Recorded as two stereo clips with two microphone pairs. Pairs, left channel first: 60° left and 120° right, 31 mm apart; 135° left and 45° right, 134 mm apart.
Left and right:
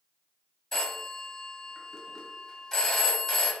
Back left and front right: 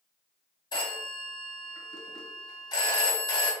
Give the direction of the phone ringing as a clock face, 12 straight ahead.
8 o'clock.